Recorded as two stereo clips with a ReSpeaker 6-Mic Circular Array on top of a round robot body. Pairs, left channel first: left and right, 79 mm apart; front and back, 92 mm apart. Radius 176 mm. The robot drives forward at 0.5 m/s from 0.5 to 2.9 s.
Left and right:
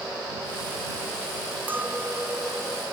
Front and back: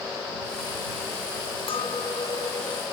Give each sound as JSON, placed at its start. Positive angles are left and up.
{"t": 1.7, "sound": "a clink", "azimuth_deg": -20}